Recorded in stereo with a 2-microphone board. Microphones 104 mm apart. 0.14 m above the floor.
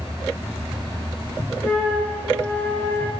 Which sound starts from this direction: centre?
A flute, at 1.6 s.